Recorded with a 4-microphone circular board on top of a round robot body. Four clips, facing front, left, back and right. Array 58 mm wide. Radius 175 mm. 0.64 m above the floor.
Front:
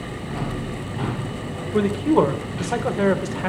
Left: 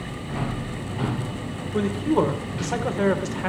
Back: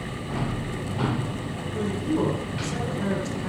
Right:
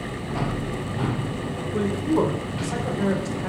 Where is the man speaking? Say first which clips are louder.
Left 1 dB, front 8 dB; 10° left, 3 m; by 3.5 s 35° left, 2.5 m.